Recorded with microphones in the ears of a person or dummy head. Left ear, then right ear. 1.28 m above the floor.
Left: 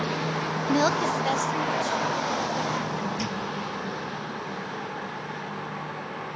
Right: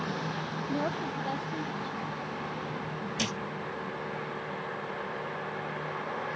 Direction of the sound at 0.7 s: 75° left (ahead or behind).